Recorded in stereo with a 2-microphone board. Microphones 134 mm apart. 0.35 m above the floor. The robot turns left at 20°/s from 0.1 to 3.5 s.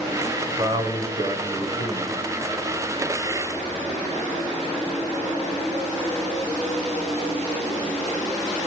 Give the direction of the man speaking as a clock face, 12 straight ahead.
2 o'clock.